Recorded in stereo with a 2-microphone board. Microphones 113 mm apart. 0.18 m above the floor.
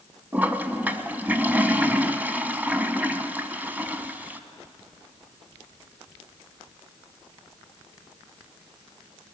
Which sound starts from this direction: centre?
A toilet flushing, at 0.3 s.